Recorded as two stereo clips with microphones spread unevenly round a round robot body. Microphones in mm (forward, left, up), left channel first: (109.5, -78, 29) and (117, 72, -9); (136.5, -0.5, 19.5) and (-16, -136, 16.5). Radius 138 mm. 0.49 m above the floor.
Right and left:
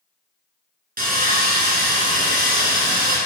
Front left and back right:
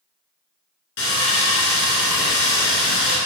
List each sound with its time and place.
1.0 s sawing: 65° left, 3 m